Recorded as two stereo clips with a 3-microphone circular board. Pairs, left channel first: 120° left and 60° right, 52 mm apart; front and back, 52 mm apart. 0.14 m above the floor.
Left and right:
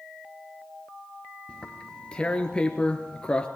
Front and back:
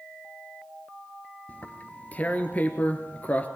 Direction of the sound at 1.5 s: 55° left.